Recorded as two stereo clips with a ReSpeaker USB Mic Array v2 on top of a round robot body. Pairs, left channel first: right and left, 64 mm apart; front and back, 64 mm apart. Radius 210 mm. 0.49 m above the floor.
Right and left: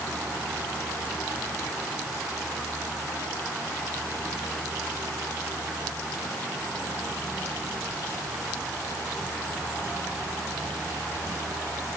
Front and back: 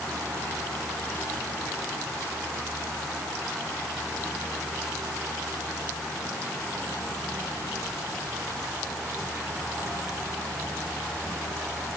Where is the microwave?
I don't hear a microwave.